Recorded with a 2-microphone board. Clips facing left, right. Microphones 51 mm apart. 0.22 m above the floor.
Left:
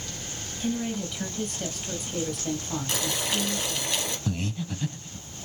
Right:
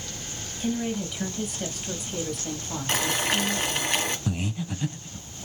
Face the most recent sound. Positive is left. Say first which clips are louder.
# right 1 dB
turn(degrees=-15)  # may be behind; listen again after turning